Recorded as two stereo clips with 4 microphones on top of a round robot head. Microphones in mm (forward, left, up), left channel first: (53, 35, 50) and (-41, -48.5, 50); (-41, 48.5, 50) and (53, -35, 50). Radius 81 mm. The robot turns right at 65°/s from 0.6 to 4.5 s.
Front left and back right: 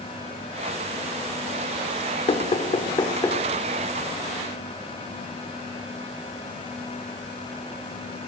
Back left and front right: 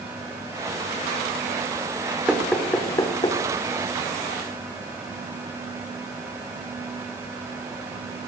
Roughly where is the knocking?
Ahead left.